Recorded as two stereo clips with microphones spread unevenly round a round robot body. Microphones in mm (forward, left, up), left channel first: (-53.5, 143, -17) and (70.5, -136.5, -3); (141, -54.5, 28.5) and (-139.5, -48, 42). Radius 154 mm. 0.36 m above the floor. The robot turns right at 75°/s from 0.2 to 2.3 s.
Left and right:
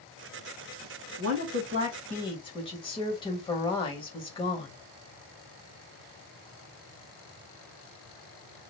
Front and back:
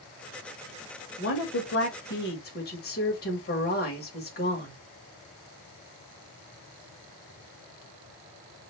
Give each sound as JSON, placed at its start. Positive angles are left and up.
{"t": 1.2, "sound": "a woman speaking", "azimuth_deg": -40, "distance_m": 1.4}